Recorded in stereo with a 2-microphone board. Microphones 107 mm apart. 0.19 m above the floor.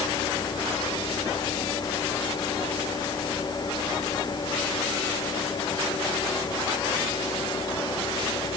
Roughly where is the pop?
No pop in this recording.